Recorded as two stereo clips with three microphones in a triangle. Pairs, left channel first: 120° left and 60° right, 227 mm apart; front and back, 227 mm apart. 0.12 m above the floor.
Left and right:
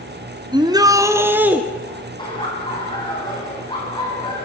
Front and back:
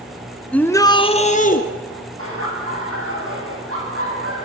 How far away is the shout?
About 1.1 m.